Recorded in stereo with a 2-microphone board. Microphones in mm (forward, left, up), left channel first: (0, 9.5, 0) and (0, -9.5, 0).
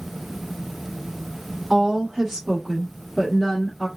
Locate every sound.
1.7 s a woman speaking: 35° right (ahead or behind), 1.2 m; by 3.9 s 10° left (ahead or behind), 1.1 m